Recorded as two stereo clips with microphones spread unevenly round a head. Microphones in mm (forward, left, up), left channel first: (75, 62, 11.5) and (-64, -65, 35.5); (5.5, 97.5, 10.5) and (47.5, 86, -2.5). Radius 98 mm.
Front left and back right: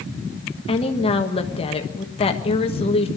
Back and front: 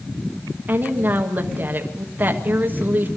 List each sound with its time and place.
0.7 s a woman speaking: 5° right, 1.3 m